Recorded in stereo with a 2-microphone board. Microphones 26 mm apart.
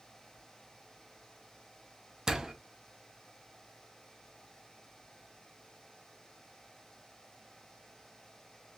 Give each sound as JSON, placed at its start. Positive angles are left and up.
{"t": 2.3, "sound": "a door slam", "side_deg": -25, "distance_m": 0.6}